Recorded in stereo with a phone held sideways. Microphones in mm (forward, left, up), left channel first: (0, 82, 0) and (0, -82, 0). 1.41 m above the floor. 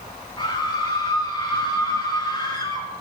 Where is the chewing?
I don't hear chewing.